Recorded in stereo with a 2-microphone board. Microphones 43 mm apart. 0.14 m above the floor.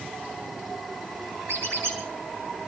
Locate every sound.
1.5 s a squeak: 75° right (ahead or behind), 5.5 m